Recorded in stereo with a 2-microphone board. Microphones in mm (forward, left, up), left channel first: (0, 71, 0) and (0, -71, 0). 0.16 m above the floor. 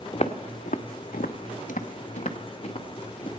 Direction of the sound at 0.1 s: 45° left (ahead or behind).